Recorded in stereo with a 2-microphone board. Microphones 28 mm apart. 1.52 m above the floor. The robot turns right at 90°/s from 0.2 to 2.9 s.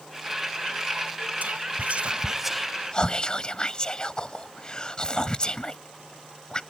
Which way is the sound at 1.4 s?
70° right (ahead or behind).